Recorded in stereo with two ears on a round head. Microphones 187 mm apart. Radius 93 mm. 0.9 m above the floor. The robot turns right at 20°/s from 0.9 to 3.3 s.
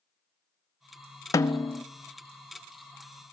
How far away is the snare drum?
About 0.8 m.